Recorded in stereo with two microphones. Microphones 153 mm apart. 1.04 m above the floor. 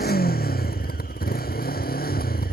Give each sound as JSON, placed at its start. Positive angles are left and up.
{"t": 0.0, "sound": "a motorcycle", "side_deg": 85}